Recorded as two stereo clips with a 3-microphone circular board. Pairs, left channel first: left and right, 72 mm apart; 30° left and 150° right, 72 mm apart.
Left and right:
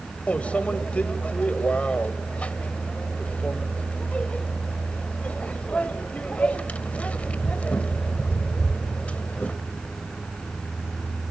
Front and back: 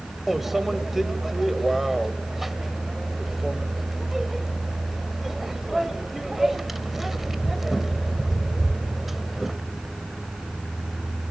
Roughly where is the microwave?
Behind left.